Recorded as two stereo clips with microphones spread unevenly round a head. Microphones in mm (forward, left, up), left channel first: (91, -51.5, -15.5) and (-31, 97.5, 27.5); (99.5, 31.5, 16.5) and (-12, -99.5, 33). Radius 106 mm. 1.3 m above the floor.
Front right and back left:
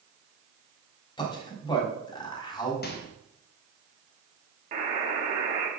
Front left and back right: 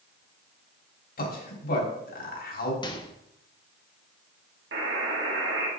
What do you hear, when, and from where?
1.2 s a man speaking: 20° left, 3.5 m
2.8 s a microwave: 15° right, 1.5 m
4.7 s a buzzer: 170° right, 2.5 m